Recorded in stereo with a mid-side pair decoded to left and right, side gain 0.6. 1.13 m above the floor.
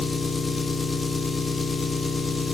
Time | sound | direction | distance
0.0 | an engine running | 15° left | 1.1 m